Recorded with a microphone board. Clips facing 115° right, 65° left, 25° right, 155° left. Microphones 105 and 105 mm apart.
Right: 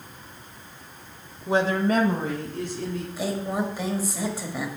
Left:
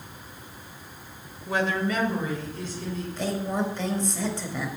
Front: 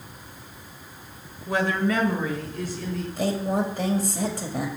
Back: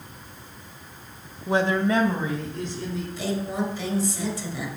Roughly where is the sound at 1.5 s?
Behind.